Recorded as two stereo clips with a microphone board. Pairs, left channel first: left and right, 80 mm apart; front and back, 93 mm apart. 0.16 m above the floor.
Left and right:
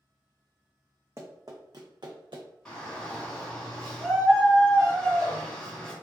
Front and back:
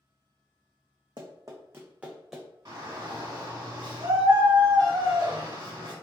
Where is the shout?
165° left, 1.8 m.